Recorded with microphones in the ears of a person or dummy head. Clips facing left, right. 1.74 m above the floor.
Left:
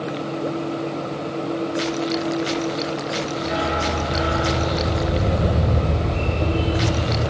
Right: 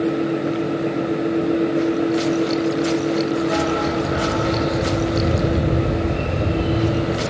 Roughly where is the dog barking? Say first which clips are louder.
Right 4 dB; right.